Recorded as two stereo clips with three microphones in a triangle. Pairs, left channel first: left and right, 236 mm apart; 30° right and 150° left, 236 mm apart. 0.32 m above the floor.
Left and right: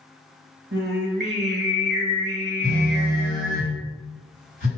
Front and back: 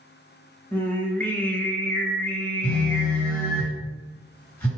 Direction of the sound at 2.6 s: 110° right.